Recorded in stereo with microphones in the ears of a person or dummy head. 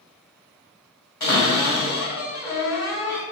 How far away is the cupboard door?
About 1.6 m.